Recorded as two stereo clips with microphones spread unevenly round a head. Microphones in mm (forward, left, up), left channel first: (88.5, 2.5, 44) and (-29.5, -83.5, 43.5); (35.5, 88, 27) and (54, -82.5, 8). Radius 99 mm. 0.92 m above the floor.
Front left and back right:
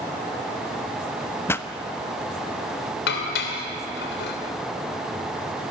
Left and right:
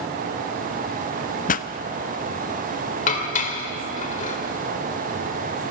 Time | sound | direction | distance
1.5 | a pop | 100° left | 0.6 m
3.1 | dishes clattering | 50° left | 2.5 m